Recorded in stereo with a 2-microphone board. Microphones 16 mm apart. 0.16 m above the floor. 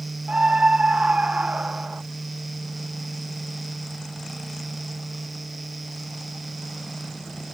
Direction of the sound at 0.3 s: 75° right (ahead or behind).